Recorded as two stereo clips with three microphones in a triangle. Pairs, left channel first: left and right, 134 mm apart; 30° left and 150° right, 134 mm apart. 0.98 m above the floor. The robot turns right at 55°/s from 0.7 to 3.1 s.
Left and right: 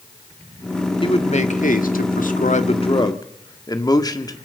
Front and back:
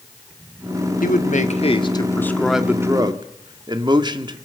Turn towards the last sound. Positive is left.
turn(degrees=155)